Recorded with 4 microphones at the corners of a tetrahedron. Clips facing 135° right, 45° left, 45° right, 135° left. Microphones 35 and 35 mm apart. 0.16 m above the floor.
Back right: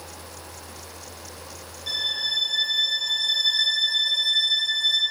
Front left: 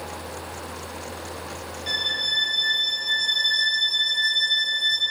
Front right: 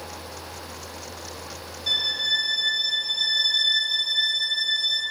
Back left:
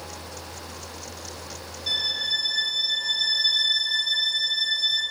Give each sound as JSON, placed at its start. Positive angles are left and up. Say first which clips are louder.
{"t": 1.9, "sound": "a violin", "louder": "front left 2 dB, front right 2 dB", "azimuth_deg": 40, "distance_m": 1.0}